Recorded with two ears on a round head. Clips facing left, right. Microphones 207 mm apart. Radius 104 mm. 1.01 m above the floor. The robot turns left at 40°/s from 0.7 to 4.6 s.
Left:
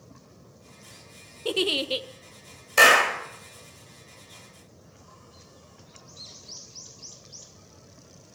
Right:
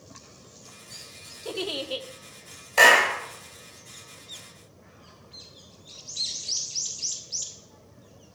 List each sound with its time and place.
1.4 s a giggle: 45° left (ahead or behind), 0.6 m; by 2.1 s 30° left (ahead or behind), 0.6 m
2.8 s a clap: 20° left (ahead or behind), 2 m; by 3.2 s 5° left (ahead or behind), 2 m